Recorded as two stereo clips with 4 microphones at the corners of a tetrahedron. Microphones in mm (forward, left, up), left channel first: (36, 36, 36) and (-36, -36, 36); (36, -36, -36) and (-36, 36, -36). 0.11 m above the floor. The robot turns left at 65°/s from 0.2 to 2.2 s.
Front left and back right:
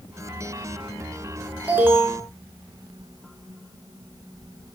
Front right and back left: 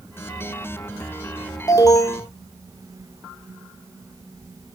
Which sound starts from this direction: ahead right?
An alarm, at 1.7 s.